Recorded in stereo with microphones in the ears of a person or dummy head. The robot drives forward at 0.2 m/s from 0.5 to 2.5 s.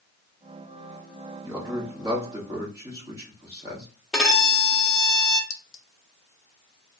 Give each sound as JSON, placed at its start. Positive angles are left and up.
{"t": 1.4, "sound": "a man speaking", "side_deg": -15, "distance_m": 1.1}
{"t": 4.1, "sound": "a violin", "side_deg": 5, "distance_m": 0.7}
{"t": 5.5, "sound": "a clink", "side_deg": 65, "distance_m": 0.7}